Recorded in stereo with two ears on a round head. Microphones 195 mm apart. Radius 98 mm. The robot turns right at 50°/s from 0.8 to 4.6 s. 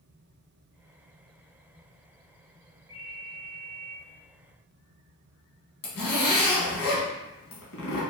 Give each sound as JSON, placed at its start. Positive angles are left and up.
{"t": 2.9, "sound": "a ringtone", "azimuth_deg": -15, "distance_m": 1.2}
{"t": 5.8, "sound": "a zipper", "side_deg": 80, "distance_m": 1.5}